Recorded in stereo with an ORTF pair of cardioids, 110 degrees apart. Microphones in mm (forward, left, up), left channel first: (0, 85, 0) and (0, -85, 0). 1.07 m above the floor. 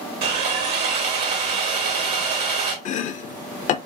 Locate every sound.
0.2 s sawing: 70° right, 1.7 m
2.9 s chopping: 45° left, 0.5 m